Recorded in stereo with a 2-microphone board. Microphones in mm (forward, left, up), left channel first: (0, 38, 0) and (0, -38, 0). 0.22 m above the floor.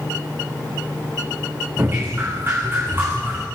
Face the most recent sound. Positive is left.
turn(degrees=-30)  # may be behind; listen again after turning